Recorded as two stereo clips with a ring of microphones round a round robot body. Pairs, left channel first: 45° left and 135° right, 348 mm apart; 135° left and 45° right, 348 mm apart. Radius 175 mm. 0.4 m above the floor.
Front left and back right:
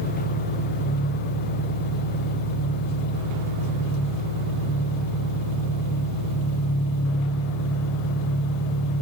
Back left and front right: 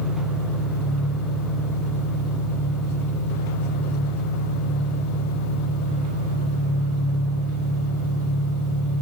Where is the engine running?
5° left, 6.5 m.